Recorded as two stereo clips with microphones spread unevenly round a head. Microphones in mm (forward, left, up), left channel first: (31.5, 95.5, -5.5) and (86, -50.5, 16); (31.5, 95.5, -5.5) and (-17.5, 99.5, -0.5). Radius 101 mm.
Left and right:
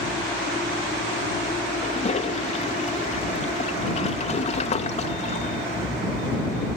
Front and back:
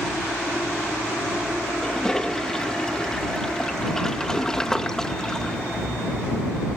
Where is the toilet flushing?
70° left.